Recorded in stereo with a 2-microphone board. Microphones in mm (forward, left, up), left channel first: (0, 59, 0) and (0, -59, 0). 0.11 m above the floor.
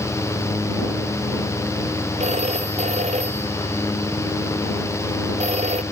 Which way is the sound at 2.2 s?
70° right (ahead or behind).